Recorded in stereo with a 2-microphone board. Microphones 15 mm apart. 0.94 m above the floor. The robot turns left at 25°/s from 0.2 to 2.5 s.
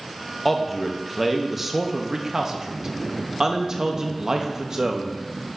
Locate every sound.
0.5 s a man speaking: 5° left (ahead or behind), 1.0 m; by 5.2 s 40° right (ahead or behind), 1.0 m